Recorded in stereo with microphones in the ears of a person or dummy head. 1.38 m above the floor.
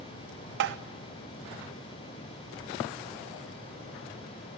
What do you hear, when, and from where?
0.6 s tapping: 55° right (ahead or behind), 0.8 m